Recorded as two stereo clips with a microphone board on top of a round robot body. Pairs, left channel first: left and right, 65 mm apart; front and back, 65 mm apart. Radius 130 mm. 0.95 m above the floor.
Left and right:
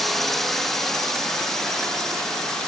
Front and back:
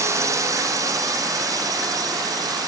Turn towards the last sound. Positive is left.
turn(degrees=170)